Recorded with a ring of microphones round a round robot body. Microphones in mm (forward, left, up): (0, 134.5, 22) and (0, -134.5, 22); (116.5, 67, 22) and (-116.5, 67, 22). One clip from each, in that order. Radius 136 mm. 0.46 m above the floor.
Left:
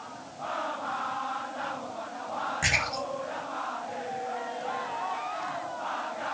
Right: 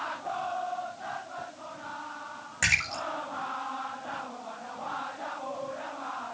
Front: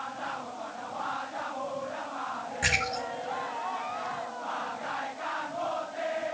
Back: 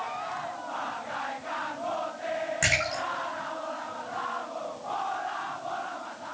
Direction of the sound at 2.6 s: 135° right.